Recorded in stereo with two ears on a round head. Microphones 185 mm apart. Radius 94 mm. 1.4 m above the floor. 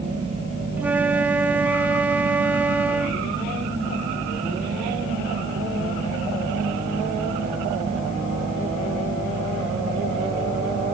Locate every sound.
0.8 s a flute: 10° right (ahead or behind)